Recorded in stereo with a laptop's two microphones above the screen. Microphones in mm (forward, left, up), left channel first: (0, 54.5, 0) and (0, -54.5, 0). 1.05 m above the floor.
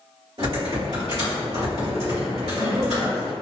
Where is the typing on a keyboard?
55° right (ahead or behind), 1.8 m.